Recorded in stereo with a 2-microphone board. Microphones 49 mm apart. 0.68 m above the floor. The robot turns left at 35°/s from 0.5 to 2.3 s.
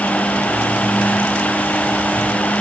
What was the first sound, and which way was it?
Only background noise.